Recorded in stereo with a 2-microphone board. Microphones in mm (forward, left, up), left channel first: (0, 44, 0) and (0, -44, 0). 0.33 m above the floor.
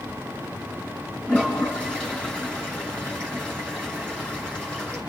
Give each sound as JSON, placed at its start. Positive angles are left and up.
{"t": 1.3, "sound": "a toilet flushing", "side_deg": 15, "distance_m": 5.5}